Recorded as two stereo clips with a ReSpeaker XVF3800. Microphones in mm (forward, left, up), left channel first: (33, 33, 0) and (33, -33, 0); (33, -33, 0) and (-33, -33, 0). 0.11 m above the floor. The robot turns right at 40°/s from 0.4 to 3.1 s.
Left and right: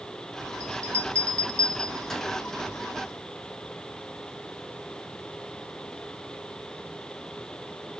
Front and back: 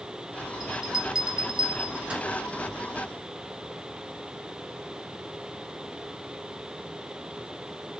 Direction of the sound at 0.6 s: 100° left.